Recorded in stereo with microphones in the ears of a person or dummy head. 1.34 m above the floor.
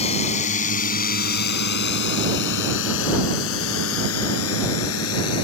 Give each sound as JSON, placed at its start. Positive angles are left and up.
{"t": 0.0, "sound": "a drone", "side_deg": 35}